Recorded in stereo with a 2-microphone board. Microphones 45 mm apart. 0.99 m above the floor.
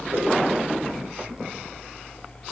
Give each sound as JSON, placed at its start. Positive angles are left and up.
{"t": 0.1, "sound": "a whoosh", "side_deg": -85, "distance_m": 5.5}